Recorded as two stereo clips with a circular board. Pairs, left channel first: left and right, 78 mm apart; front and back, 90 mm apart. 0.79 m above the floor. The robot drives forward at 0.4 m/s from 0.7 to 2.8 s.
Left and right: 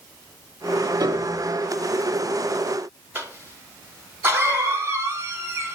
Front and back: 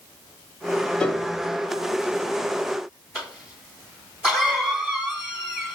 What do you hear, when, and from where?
1.0 s a piano: 80° right, 0.6 m; by 1.4 s 95° right, 0.6 m
3.1 s a cough: 110° right, 1.2 m